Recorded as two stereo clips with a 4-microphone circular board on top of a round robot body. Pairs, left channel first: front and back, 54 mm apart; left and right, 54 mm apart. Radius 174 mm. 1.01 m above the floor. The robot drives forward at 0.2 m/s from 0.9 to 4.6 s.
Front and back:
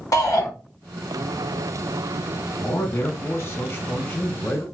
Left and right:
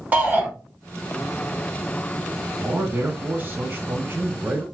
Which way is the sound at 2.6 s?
35° right.